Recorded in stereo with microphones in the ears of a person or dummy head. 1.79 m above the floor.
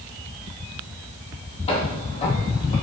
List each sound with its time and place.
1.7 s footsteps: 35° left (ahead or behind), 3 m; by 2.7 s 40° left (ahead or behind), 4.5 m